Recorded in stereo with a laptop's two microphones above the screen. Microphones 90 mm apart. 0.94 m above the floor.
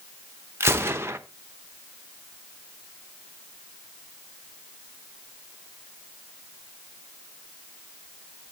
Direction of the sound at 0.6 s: 25° right (ahead or behind).